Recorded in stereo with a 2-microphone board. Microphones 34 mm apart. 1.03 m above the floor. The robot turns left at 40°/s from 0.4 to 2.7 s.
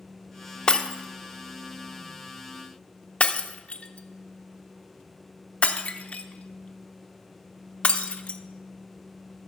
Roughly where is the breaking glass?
Left.